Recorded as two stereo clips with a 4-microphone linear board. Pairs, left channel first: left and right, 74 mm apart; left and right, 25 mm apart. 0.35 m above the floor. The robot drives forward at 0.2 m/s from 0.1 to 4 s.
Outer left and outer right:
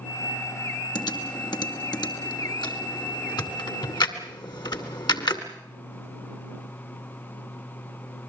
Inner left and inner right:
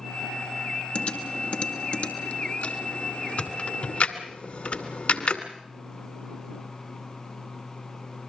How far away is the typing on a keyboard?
About 2.5 m.